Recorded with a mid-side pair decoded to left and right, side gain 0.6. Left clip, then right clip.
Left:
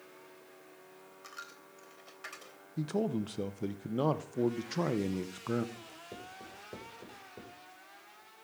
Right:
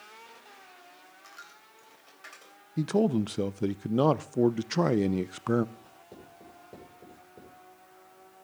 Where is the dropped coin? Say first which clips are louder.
Left 2 dB; 20° left, 3 m.